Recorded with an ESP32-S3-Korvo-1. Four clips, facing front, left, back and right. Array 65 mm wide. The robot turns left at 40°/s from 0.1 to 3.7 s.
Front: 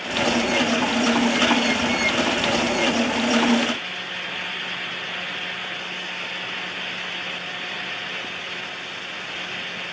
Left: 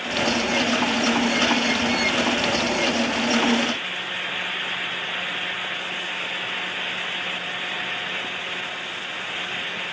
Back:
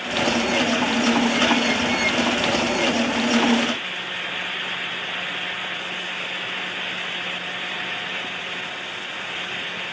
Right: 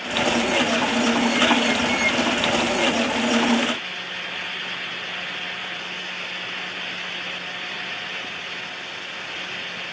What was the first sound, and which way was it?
Only background noise.